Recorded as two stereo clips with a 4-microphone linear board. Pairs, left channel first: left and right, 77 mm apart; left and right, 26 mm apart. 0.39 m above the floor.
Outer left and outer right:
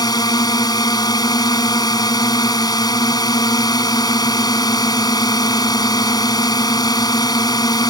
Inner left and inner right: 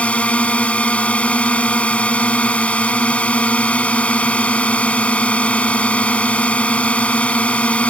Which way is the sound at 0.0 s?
60° left (ahead or behind).